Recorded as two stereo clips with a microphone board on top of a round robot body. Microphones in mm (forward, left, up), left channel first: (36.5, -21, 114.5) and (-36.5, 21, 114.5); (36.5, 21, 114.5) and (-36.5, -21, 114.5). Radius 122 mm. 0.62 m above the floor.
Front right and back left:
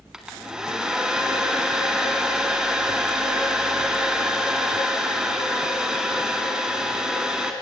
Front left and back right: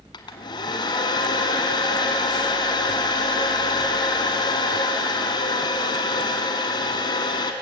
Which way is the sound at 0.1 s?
70° left.